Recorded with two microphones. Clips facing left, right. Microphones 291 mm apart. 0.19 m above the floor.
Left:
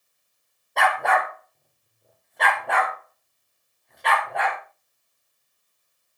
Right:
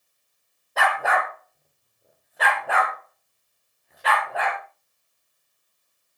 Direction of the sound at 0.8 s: 5° right (ahead or behind).